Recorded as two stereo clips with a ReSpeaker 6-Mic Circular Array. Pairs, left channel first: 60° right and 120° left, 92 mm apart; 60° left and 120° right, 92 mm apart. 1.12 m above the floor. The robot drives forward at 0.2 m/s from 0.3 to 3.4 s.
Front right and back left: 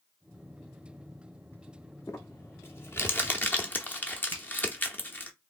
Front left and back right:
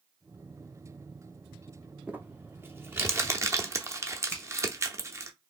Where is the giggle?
I don't hear a giggle.